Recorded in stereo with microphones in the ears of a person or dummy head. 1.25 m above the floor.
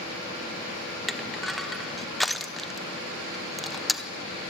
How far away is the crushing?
About 0.7 m.